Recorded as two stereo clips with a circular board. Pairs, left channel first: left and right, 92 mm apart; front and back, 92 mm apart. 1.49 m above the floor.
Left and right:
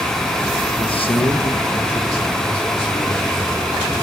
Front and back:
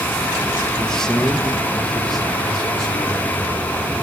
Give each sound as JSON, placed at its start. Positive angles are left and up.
{"t": 0.8, "sound": "a man speaking", "azimuth_deg": 85, "distance_m": 1.0}